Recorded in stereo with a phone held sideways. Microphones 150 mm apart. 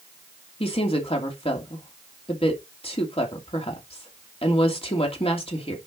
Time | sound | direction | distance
0.6 | a woman speaking | 40° left (ahead or behind) | 2.5 m